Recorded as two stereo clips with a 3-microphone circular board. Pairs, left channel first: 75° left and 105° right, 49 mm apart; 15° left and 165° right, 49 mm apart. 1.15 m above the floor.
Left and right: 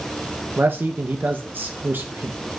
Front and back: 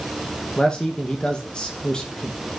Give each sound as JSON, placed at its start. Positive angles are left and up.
{"t": 0.6, "sound": "a man speaking", "azimuth_deg": -60, "distance_m": 0.5}